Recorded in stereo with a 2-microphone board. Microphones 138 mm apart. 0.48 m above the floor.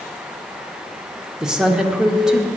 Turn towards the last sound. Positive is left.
turn(degrees=-5)  # may be behind; listen again after turning